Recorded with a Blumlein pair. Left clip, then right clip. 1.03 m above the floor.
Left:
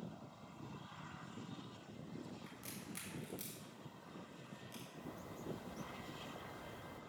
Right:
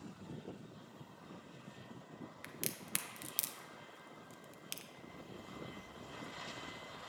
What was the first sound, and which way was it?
A crack, 40° right.